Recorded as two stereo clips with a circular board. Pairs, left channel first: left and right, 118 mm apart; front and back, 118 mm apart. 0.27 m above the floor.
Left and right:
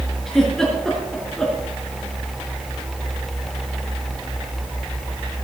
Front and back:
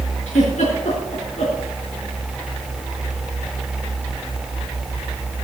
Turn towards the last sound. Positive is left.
turn(degrees=5)